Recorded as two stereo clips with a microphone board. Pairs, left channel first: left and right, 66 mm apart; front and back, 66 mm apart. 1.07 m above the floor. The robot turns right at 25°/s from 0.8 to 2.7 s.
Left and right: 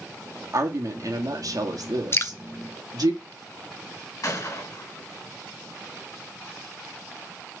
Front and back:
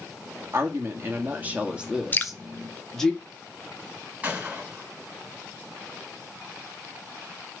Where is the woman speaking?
130° right, 1.8 m; by 3.1 s 85° right, 1.8 m.